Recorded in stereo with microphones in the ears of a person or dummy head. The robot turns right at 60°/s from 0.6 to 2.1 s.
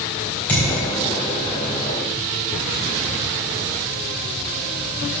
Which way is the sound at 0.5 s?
10° left (ahead or behind).